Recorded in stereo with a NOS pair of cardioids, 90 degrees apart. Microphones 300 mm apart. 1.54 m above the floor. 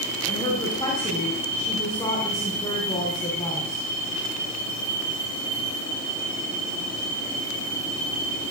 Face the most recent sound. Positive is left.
turn(degrees=15)